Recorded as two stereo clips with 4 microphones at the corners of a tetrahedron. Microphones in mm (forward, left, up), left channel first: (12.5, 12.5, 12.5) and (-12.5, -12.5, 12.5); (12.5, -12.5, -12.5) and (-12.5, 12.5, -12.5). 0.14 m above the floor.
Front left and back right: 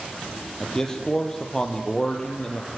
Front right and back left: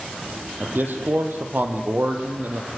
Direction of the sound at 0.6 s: 115° left.